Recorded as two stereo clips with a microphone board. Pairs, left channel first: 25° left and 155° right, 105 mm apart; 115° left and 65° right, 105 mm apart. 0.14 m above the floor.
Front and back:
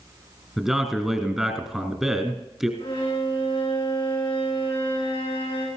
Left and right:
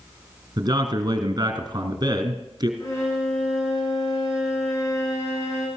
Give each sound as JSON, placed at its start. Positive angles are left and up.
{"t": 0.6, "sound": "a man speaking", "azimuth_deg": -75, "distance_m": 2.0}
{"t": 2.8, "sound": "a violin", "azimuth_deg": 55, "distance_m": 5.5}